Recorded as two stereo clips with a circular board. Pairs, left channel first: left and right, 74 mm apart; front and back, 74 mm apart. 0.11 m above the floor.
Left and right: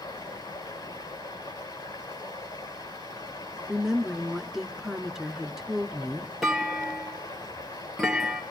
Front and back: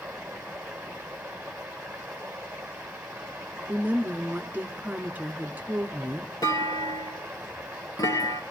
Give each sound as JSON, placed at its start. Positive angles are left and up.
{"t": 0.0, "sound": "running water", "azimuth_deg": 105, "distance_m": 5.5}
{"t": 3.7, "sound": "a woman speaking", "azimuth_deg": -165, "distance_m": 1.1}
{"t": 6.4, "sound": "a clunk", "azimuth_deg": -5, "distance_m": 2.5}